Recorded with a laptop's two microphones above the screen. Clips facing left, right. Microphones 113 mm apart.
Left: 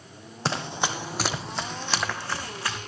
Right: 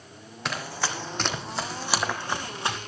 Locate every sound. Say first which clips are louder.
0.5 s running footsteps: left 3 dB; 30° left (ahead or behind), 1.9 m; by 2.8 s 25° right (ahead or behind), 3 m